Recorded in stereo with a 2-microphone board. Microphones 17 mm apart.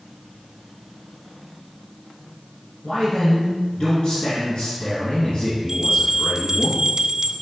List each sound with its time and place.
2.8 s a man speaking: 55° left (ahead or behind), 2.5 m
5.7 s a bell: 30° right (ahead or behind), 0.7 m